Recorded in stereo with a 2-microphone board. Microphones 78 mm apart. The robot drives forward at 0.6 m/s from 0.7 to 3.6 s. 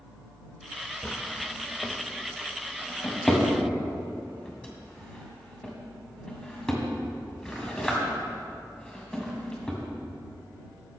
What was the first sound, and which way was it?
A drawer, 25° left (ahead or behind).